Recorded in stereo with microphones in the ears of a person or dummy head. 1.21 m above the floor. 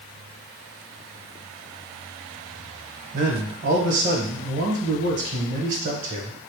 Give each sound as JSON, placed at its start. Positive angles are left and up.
{"t": 3.1, "sound": "a man speaking", "side_deg": -40, "distance_m": 1.2}